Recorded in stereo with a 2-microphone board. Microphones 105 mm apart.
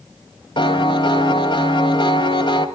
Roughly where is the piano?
Left.